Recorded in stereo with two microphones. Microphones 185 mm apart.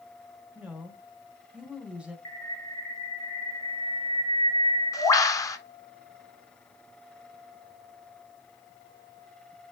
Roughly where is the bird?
Centre.